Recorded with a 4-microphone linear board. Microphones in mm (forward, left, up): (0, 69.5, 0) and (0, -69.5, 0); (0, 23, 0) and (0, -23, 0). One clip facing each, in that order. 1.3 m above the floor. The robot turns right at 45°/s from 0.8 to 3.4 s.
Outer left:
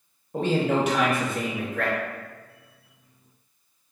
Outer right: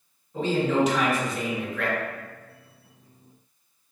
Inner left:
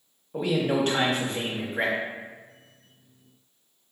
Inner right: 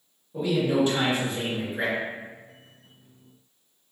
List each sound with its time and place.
0.3 s a man speaking: 80° left, 1.1 m; by 2.0 s 130° left, 1.1 m